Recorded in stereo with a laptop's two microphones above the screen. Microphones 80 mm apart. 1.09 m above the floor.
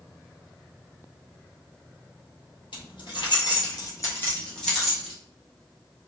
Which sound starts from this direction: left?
Keys jangling, at 2.7 s.